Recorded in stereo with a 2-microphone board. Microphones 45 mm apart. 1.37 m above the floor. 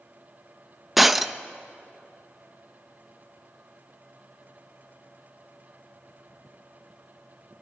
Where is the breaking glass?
5° right (ahead or behind), 0.7 m.